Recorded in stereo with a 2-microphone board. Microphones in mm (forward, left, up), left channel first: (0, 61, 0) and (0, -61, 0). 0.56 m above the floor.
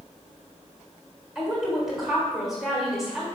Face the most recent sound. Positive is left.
turn(degrees=0)  # may be behind; listen again after turning